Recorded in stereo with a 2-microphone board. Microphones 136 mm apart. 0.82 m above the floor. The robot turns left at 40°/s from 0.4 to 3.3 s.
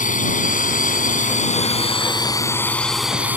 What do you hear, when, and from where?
0.0 s a drone: 105° left; by 3.4 s 10° right